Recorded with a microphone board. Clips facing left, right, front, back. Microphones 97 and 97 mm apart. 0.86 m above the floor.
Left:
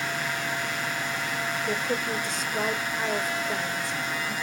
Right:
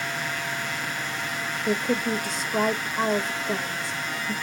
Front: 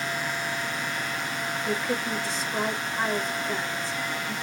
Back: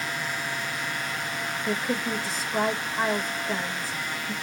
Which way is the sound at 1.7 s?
100° right.